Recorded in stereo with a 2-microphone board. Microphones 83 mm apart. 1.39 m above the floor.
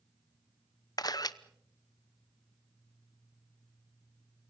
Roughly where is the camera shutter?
Left.